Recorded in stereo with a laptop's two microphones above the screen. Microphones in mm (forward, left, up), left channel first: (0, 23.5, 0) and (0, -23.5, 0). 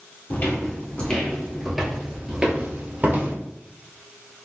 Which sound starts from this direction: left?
Footsteps, at 0.3 s.